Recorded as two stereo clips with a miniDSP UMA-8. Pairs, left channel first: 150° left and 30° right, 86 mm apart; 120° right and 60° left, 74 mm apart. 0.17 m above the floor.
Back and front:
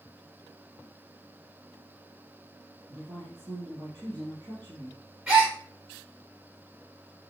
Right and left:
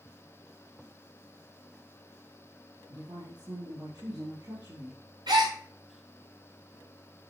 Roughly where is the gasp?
Ahead left.